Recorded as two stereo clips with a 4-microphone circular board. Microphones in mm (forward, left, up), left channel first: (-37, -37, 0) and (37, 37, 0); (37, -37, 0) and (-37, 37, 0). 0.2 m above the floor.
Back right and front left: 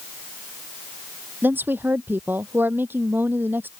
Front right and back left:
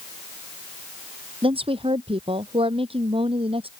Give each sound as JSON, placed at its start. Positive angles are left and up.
{"t": 1.4, "sound": "a woman speaking", "azimuth_deg": 115}